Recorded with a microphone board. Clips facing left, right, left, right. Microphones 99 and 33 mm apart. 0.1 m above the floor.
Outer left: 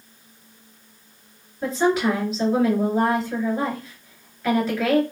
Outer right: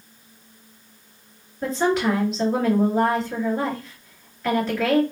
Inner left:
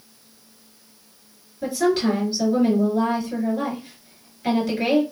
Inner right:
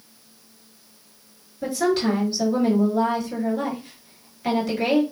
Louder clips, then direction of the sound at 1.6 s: Outer left 1 dB, inner left 1 dB; 5° left (ahead or behind).